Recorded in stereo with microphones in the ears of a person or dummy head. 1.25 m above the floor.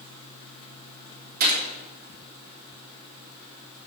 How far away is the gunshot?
About 3.5 m.